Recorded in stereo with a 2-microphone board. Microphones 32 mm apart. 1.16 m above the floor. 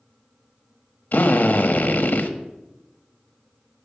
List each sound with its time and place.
1.1 s a drill: 60° left (ahead or behind), 1.2 m